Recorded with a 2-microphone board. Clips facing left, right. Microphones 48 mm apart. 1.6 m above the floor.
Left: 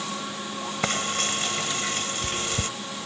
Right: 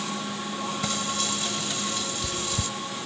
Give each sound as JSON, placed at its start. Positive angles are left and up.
{"t": 0.8, "sound": "frying", "side_deg": 50}